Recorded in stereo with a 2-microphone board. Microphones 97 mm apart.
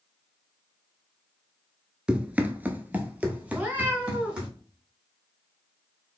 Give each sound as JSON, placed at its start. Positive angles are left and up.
{"t": 2.1, "sound": "running footsteps", "side_deg": -10, "distance_m": 0.5}
{"t": 3.5, "sound": "a cat meowing", "side_deg": -15, "distance_m": 0.9}